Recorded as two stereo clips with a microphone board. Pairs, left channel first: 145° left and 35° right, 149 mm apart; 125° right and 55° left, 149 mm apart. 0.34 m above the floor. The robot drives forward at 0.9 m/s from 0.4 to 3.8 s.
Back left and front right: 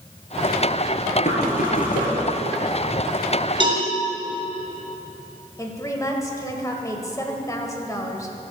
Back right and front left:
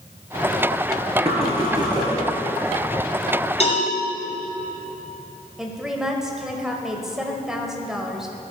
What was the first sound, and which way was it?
Knocking, 105° left.